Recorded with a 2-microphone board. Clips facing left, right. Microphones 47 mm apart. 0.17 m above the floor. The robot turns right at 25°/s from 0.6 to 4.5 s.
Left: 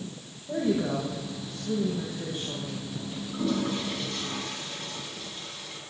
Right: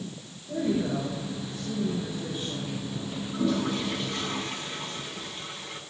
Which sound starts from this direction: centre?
A toilet flushing, at 3.3 s.